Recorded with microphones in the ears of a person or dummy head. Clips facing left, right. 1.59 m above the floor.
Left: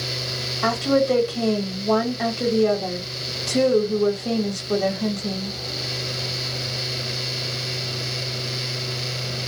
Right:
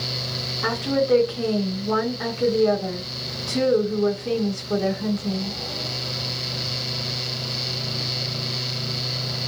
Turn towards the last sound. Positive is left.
turn(degrees=70)  # may be behind; listen again after turning